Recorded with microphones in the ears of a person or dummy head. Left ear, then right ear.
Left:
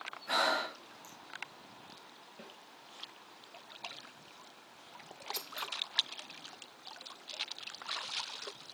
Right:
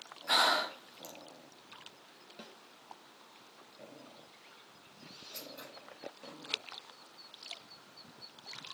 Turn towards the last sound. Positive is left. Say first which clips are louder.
# left 7 dB
turn(degrees=35)  # may be behind; listen again after turning